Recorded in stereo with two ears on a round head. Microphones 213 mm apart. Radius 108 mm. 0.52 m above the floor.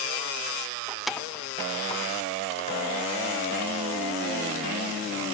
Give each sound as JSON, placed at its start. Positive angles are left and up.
{"t": 0.9, "sound": "keys jangling", "side_deg": -10, "distance_m": 0.6}